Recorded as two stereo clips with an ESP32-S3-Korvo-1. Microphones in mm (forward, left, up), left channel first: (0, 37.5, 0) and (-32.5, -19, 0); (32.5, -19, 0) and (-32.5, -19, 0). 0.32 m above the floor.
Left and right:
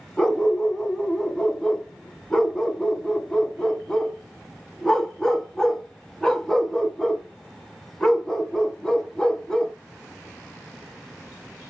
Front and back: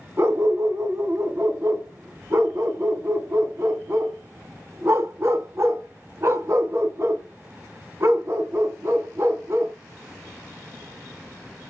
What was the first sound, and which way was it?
A dog barking, 140° left.